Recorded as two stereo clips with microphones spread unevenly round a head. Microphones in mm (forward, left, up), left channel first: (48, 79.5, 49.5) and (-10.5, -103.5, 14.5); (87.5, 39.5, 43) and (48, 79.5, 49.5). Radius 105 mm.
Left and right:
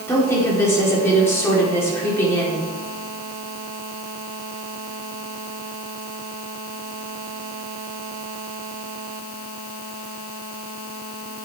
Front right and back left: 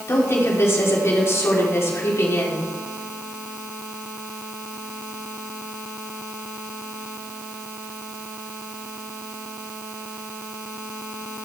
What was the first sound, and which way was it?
A woman speaking, 5° right.